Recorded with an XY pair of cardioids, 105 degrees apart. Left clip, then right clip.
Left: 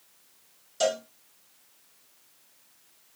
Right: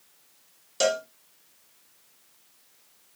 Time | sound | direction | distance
0.8 | a cowbell | 50° right | 4 m